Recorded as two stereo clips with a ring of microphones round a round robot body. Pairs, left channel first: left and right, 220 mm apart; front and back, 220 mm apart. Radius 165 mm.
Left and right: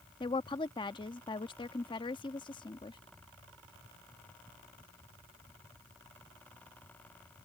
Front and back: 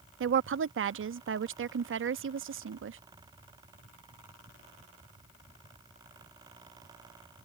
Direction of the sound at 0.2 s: 160° left.